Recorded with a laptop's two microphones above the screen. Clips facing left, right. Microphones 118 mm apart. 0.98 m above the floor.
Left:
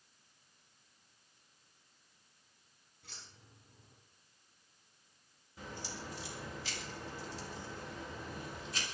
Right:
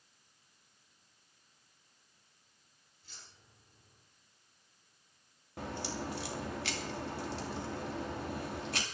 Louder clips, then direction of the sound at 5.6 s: Right 7 dB; 70° right (ahead or behind).